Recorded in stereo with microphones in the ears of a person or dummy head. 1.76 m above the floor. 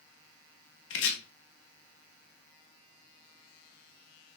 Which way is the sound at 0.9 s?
70° left (ahead or behind).